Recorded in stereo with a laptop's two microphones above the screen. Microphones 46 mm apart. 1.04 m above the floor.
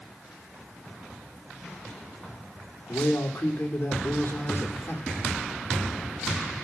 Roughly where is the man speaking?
Left.